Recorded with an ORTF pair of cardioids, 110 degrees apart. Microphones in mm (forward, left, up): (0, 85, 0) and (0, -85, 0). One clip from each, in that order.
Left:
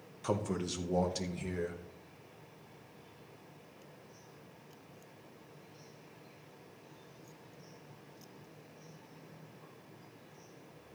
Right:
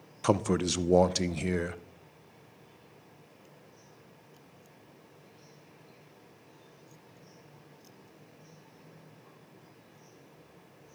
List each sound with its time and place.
0.2 s a man speaking: 45° right, 0.5 m